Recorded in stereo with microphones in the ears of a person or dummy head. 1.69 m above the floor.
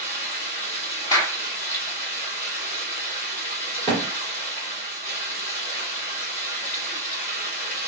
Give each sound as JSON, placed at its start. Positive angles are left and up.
{"t": 0.0, "sound": "running water", "side_deg": 45, "distance_m": 1.9}
{"t": 1.1, "sound": "a clap", "side_deg": 20, "distance_m": 1.3}
{"t": 3.9, "sound": "a thud", "side_deg": -5, "distance_m": 2.0}